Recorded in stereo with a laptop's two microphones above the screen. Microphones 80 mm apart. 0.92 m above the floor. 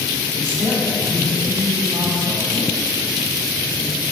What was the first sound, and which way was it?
A man speaking, 75° right (ahead or behind).